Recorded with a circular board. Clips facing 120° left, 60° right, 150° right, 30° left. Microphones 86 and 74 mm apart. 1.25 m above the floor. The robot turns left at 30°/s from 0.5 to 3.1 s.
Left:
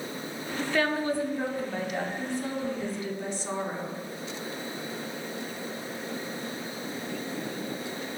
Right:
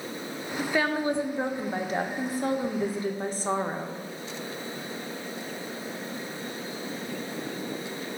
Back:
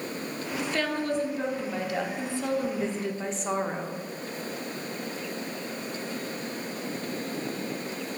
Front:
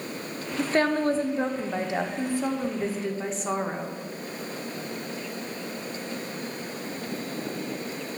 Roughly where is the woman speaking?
Ahead.